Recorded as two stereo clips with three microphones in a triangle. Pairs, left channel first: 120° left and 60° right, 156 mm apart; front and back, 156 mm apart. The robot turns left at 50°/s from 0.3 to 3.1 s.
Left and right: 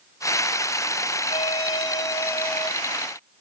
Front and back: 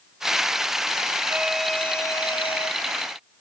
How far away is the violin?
About 1.0 m.